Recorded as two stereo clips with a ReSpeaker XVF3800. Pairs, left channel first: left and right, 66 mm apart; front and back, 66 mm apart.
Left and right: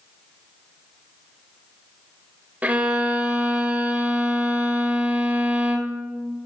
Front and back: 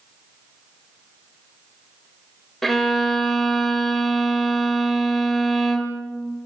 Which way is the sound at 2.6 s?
85° right.